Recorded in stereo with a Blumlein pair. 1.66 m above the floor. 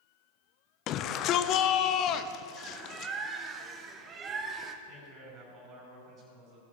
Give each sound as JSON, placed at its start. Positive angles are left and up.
{"t": 0.9, "sound": "a shout", "azimuth_deg": 35, "distance_m": 0.7}
{"t": 2.6, "sound": "a bird", "azimuth_deg": -25, "distance_m": 1.1}
{"t": 4.8, "sound": "a man speaking", "azimuth_deg": -35, "distance_m": 5.0}